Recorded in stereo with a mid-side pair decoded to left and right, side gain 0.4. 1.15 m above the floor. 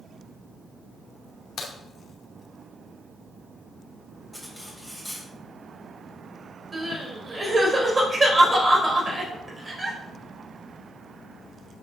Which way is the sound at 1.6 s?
70° left.